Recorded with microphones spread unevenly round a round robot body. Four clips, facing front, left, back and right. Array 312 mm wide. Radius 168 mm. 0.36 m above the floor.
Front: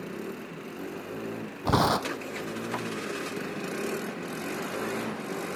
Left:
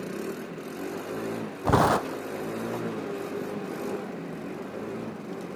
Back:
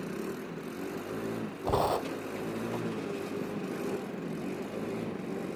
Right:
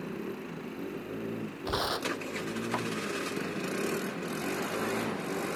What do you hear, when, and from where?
1.6 s tearing paper: 60° left